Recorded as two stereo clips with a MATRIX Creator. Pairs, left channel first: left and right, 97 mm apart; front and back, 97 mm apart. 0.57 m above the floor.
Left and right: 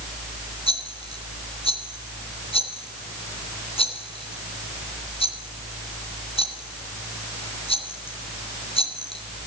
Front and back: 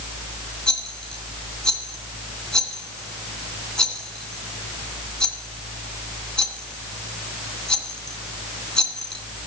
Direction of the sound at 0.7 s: 80° left.